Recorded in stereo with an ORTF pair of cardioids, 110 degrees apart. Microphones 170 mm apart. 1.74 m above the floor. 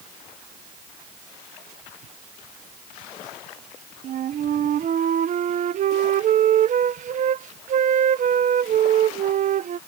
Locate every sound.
4.0 s a flute: 50° right